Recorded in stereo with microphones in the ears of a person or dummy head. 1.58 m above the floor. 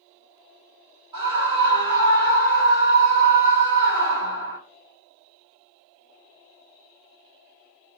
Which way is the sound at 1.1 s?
20° right (ahead or behind).